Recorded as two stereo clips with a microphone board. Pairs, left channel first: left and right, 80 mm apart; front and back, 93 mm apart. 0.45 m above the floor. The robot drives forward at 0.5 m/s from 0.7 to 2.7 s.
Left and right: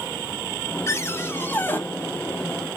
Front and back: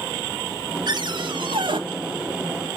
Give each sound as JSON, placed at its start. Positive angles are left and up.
{"t": 0.9, "sound": "a cupboard door", "azimuth_deg": 140, "distance_m": 0.9}